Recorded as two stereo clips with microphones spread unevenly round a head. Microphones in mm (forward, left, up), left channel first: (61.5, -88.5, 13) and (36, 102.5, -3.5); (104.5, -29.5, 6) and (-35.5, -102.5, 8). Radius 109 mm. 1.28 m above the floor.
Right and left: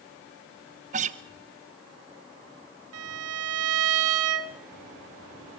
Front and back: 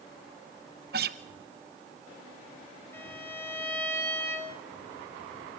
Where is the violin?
110° left, 2 m.